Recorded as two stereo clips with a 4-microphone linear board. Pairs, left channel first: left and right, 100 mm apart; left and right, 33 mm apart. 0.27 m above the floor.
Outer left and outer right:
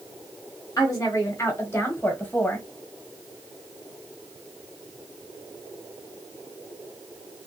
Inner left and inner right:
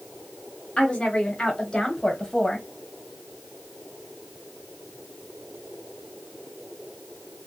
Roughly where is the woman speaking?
Left.